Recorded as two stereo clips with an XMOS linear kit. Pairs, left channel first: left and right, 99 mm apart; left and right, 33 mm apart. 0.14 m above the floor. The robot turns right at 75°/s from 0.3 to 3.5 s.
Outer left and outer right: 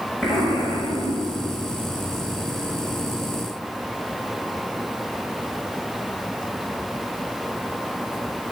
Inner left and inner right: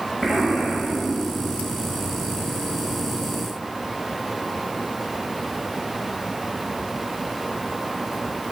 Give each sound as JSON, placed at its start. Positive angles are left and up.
{"t": 0.2, "sound": "an explosion", "azimuth_deg": 10, "distance_m": 2.0}